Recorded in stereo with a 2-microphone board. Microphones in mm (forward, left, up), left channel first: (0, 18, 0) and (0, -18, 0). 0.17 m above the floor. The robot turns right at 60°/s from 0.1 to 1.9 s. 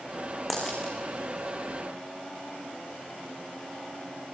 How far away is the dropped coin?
About 6.5 m.